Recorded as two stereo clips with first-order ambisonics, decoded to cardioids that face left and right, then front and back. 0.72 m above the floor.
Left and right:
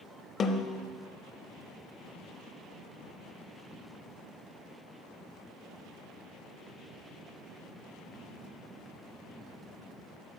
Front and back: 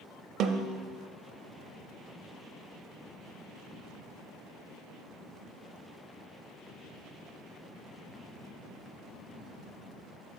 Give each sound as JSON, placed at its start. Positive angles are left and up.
{"t": 0.4, "sound": "a snare drum", "azimuth_deg": 150, "distance_m": 0.6}